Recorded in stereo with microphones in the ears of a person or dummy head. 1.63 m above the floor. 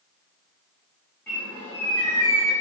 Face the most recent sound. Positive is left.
turn(degrees=10)  # may be behind; listen again after turning